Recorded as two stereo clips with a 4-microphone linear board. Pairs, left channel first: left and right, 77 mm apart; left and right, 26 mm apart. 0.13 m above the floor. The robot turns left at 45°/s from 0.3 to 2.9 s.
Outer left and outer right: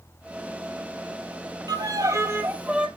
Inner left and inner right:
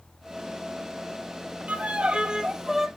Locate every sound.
1.7 s a violin: 115° right, 1.1 m; by 2.9 s 170° right, 1.1 m